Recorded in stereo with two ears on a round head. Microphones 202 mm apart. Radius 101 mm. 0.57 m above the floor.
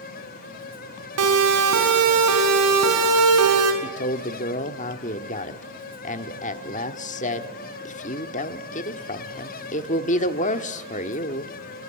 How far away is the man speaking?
About 1.3 m.